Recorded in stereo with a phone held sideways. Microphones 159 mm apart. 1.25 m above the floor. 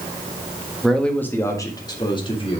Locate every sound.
0.8 s a man speaking: centre (ahead or behind), 1.4 m; by 2.6 s 35° left (ahead or behind), 2.5 m